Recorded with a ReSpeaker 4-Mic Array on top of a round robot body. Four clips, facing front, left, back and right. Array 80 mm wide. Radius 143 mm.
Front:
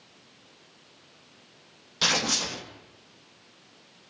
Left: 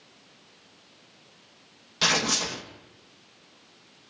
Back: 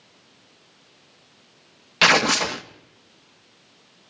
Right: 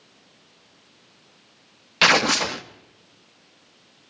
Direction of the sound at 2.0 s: 140° right.